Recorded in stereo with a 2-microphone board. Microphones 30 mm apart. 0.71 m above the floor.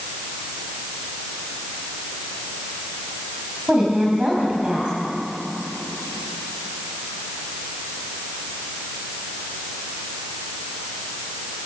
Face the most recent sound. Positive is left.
turn(degrees=-30)  # may be behind; listen again after turning